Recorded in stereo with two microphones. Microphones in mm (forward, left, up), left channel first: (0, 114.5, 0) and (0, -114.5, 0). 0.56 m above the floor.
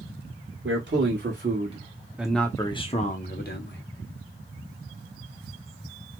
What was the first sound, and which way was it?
A man speaking, 55° right (ahead or behind).